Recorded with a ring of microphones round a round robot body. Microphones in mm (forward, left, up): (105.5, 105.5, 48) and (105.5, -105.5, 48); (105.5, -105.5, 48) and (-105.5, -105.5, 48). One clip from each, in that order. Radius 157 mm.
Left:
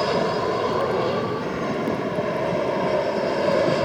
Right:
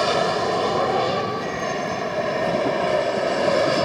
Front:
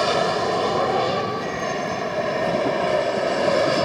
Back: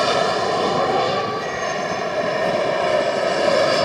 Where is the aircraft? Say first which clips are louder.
Right 2 dB, back 2 dB; 140° right; by 3.9 s 155° right.